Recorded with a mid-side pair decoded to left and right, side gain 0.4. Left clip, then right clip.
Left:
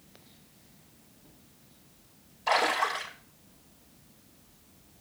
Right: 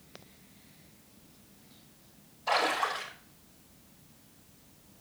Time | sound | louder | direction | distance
2.5 | a splash | left 2 dB | 70° left | 5.5 m